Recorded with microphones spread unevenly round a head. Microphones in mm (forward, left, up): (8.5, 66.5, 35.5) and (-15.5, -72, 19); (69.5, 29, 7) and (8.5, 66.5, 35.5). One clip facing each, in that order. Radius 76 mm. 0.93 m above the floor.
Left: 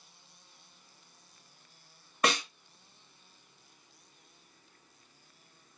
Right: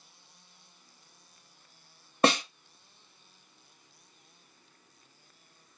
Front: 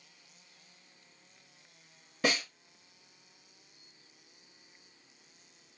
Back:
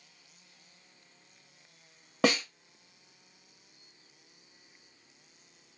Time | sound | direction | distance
2.2 | a snare drum | 165° right | 0.6 m